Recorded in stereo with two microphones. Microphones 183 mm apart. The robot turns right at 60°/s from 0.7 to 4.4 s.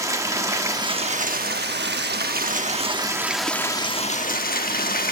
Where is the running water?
160° right, 1.0 m; by 5.1 s 60° left, 1.0 m.